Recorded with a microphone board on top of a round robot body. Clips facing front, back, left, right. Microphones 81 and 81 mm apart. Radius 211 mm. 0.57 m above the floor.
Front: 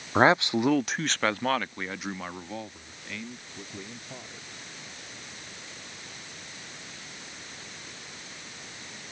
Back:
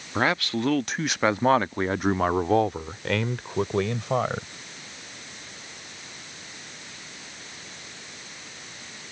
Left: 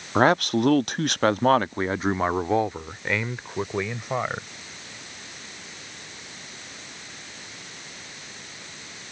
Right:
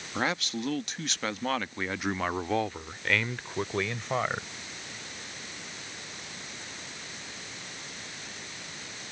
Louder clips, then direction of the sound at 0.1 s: Front 4 dB, left 12 dB; 55° left.